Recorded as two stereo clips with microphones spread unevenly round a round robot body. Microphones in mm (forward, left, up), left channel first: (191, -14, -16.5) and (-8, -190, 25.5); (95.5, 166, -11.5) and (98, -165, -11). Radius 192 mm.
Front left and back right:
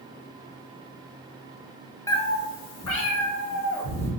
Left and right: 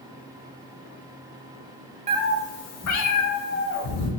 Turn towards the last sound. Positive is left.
turn(degrees=70)